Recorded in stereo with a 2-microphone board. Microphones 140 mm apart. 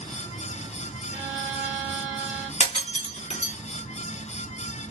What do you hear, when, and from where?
1.1 s a violin: 10° right (ahead or behind), 0.9 m
2.6 s breaking glass: 55° left (ahead or behind), 1.8 m